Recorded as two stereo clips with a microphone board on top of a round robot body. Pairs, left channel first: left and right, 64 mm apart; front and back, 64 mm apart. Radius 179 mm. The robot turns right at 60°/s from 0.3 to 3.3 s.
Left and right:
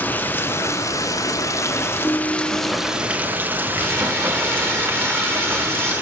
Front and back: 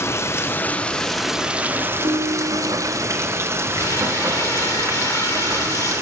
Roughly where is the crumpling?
Ahead right.